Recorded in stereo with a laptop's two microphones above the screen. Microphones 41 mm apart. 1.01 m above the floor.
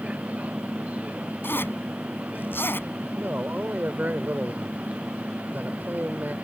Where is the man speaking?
50° right (ahead or behind).